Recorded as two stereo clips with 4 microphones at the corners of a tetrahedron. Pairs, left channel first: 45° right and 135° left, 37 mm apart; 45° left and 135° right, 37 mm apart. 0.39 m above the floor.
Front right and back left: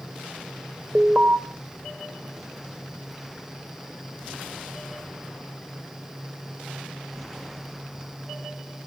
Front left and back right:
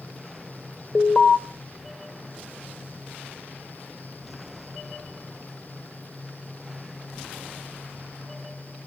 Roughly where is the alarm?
Left.